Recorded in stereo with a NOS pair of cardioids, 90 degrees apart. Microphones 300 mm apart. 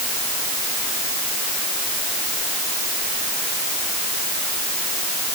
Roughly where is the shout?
I don't hear a shout.